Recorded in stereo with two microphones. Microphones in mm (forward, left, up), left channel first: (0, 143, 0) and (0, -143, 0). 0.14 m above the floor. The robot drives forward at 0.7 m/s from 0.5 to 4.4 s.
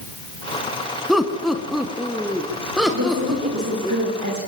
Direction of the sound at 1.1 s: Centre (ahead or behind).